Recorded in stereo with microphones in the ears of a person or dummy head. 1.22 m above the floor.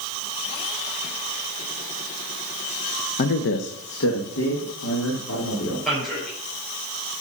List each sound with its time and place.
3.2 s a man speaking: 40° left (ahead or behind), 0.5 m; by 5.8 s 90° left, 3 m
5.8 s a man speaking: 10° left (ahead or behind), 4.5 m